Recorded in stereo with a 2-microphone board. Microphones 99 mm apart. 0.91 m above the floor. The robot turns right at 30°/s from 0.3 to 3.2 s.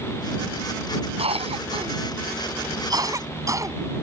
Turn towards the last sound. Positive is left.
turn(degrees=-35)  # may be behind; listen again after turning